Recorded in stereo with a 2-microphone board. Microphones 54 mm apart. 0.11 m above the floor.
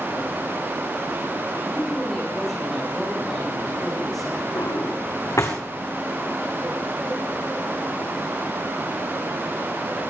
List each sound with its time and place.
1.6 s a man speaking: 10° left (ahead or behind), 9.5 m; by 4.5 s 5° left (ahead or behind), 8.5 m
4.5 s a drawer: 70° left (ahead or behind), 3.5 m